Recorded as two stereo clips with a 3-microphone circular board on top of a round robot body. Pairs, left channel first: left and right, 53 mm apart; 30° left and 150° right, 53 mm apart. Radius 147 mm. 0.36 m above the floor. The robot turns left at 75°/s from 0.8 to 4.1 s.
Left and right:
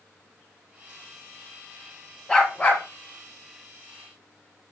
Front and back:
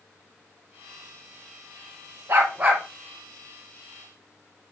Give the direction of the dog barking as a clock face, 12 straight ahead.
6 o'clock.